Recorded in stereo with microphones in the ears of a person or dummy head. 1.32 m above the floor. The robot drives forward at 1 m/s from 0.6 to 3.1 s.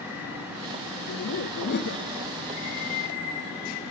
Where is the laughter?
90° left, 1.0 m; by 2.1 s 45° left (ahead or behind), 1.4 m.